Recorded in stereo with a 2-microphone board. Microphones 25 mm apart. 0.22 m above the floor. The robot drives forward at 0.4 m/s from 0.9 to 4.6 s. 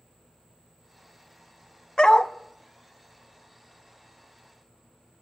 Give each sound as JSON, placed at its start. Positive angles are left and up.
{"t": 2.0, "sound": "a dog barking", "side_deg": 35, "distance_m": 0.7}